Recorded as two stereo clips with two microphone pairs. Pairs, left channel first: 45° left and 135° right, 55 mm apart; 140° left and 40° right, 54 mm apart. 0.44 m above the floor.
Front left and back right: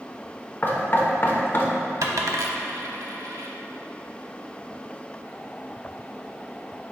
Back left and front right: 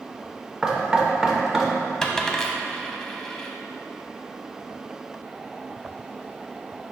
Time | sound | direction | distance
0.6 | knocking | 35° left | 0.9 m
2.0 | a dropped coin | 140° right | 0.7 m